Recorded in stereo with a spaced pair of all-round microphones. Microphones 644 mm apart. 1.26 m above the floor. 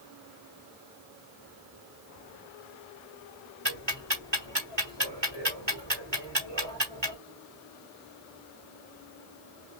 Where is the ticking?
40° right (ahead or behind), 1.2 m.